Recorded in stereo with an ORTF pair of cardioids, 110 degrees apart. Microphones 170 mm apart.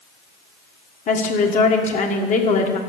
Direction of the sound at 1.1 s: 50° left.